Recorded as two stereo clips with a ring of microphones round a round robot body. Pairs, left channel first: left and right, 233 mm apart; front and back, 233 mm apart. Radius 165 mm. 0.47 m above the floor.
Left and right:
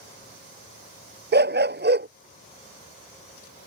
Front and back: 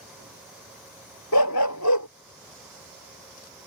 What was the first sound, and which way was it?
A dog barking, 45° right.